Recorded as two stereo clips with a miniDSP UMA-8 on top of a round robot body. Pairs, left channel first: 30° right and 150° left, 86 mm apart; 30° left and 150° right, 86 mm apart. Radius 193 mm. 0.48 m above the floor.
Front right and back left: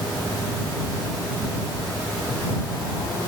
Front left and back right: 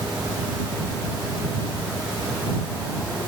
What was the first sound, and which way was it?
Only background noise.